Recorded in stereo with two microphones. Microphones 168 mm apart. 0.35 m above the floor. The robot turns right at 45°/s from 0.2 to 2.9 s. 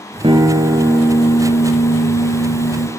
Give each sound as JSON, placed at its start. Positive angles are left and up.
{"t": 0.2, "sound": "a guitar", "azimuth_deg": -35, "distance_m": 1.2}